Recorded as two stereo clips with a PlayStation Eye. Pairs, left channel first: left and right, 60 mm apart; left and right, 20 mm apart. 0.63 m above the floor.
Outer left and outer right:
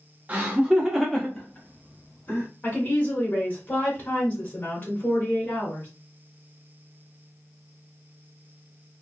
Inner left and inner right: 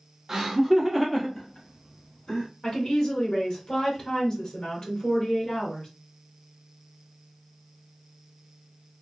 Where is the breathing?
No breathing in this recording.